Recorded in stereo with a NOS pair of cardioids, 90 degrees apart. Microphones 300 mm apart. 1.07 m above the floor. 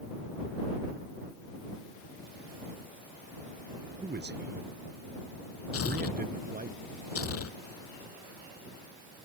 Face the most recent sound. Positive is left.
turn(degrees=50)